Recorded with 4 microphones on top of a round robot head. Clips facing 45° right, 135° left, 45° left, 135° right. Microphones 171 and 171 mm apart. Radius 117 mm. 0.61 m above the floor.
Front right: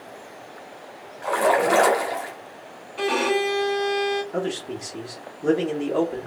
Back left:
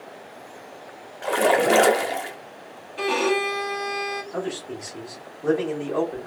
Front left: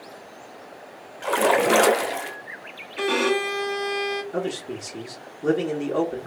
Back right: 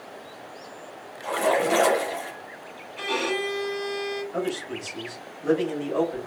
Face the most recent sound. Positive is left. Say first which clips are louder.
# front right 2 dB, front left 1 dB
turn(degrees=15)